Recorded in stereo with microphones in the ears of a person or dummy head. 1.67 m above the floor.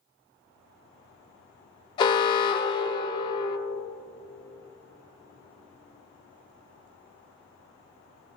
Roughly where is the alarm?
Left.